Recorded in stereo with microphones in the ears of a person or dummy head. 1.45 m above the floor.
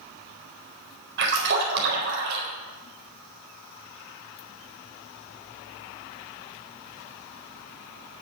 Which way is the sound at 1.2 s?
60° right (ahead or behind).